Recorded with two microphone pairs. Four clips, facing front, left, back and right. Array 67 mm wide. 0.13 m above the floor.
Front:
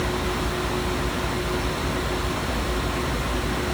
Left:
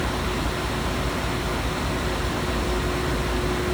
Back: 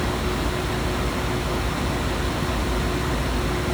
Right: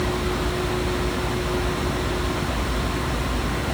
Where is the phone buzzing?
I don't hear a phone buzzing.